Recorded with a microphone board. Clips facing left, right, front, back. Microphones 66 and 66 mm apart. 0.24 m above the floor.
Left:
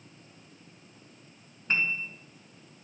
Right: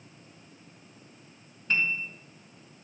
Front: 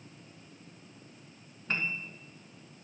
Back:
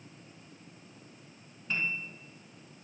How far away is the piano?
About 1.2 m.